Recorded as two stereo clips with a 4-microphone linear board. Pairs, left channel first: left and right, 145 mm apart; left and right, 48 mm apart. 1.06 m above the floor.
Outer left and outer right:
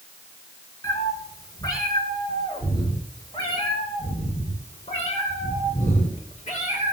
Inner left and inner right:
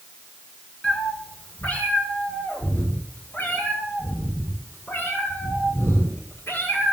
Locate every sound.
0.8 s a cat meowing: 25° left (ahead or behind), 6 m; by 6.9 s 55° left (ahead or behind), 9 m